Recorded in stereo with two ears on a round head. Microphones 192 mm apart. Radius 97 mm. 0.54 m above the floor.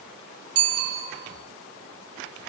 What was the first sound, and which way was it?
A bicycle bell, 70° right (ahead or behind).